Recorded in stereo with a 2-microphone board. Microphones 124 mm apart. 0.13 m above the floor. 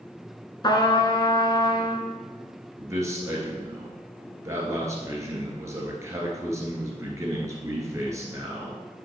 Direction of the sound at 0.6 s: 35° left (ahead or behind).